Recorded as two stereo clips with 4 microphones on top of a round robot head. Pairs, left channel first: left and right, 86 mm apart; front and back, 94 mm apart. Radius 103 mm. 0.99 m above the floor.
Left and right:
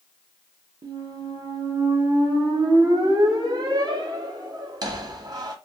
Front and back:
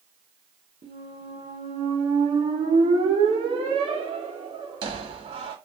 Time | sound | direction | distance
0.8 | a squeak | 135° right | 0.6 m